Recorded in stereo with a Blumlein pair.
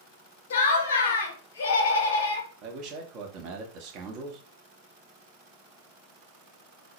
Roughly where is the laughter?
Ahead left.